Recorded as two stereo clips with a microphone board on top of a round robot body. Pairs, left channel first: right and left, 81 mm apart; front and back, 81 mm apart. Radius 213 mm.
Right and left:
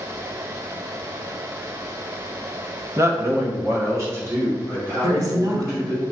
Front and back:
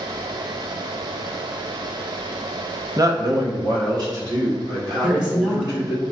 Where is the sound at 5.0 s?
110° left, 1.2 m.